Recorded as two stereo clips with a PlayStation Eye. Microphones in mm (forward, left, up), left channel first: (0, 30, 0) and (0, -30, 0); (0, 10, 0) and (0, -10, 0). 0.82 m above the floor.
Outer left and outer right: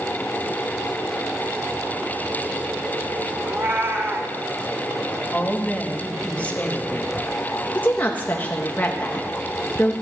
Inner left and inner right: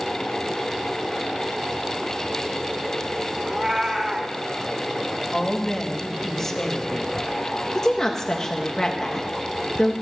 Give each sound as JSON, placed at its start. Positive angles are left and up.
{"t": 3.5, "sound": "a cat meowing", "side_deg": -35, "distance_m": 0.9}
{"t": 5.3, "sound": "a woman speaking", "side_deg": 20, "distance_m": 0.9}
{"t": 7.8, "sound": "a woman speaking", "side_deg": 25, "distance_m": 0.7}